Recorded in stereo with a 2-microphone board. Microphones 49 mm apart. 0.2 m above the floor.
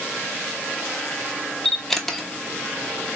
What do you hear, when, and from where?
1.6 s a camera shutter: 5° left (ahead or behind), 0.9 m